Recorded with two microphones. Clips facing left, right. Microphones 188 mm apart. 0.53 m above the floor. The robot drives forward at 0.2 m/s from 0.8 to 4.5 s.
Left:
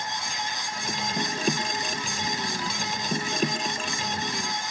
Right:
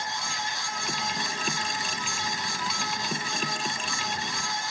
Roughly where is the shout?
I don't hear a shout.